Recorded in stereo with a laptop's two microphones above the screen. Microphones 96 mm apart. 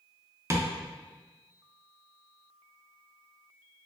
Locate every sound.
0.5 s tapping: 30° right (ahead or behind), 0.5 m